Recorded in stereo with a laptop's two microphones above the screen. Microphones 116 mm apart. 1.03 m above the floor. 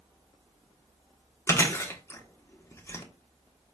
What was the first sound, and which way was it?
Chewing, 25° left (ahead or behind).